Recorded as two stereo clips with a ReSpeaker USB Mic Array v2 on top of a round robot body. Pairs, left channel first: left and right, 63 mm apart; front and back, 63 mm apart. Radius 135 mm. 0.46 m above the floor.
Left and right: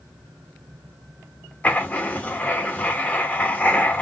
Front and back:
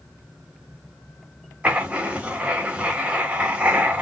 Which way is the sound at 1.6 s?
130° left.